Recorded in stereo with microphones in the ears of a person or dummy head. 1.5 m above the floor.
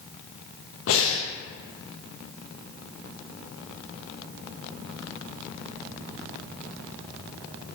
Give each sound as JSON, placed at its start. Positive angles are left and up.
{"t": 0.9, "sound": "breathing", "side_deg": 70, "distance_m": 0.6}